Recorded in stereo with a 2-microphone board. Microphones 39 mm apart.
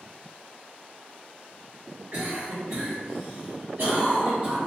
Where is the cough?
65° right (ahead or behind), 1.4 m.